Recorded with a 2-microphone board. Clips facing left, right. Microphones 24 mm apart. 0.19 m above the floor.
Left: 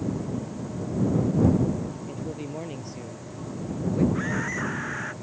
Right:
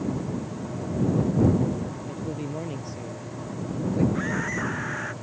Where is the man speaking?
5° left (ahead or behind); by 4.0 s 5° right (ahead or behind).